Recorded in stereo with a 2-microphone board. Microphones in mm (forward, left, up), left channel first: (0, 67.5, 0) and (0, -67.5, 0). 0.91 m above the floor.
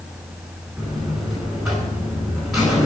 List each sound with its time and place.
0.8 s a buzzer: centre (ahead or behind), 5 m